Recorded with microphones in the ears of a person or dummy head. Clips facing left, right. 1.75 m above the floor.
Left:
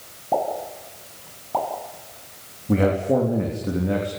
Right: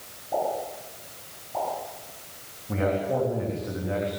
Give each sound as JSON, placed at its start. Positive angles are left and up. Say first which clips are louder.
{"t": 0.3, "sound": "a pop", "louder": "left 3 dB", "side_deg": 60, "distance_m": 7.0}
{"t": 2.7, "sound": "a man speaking", "louder": "left 6 dB", "side_deg": 40, "distance_m": 4.0}